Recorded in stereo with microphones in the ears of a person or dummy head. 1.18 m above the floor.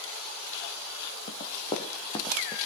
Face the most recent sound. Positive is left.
turn(degrees=20)  # may be behind; listen again after turning